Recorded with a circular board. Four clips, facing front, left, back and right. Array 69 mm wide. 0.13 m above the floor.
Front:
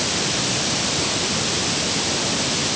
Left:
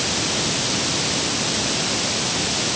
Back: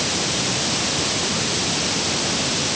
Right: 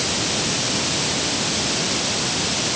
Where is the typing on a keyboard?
No typing on a keyboard in this recording.